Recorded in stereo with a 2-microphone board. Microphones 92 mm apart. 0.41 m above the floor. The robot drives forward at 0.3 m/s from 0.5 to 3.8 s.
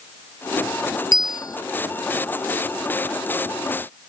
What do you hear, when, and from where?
1.1 s a bell: 45° left (ahead or behind)